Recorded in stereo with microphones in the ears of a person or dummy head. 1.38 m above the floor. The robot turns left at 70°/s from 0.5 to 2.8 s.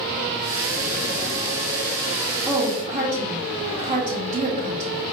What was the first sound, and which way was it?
A woman speaking, 15° right (ahead or behind).